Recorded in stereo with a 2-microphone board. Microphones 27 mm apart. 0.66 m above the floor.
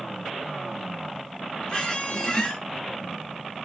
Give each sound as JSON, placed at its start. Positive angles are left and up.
{"t": 1.7, "sound": "a squeak", "side_deg": 35, "distance_m": 0.9}